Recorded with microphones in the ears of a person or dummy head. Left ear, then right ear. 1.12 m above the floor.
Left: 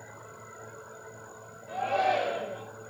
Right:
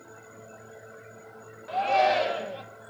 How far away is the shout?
About 0.9 m.